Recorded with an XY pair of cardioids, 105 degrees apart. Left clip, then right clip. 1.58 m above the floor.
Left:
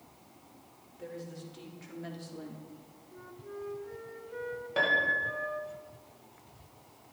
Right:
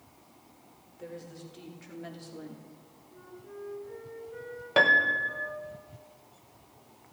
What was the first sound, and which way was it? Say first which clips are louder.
A woman speaking: even; 10° right.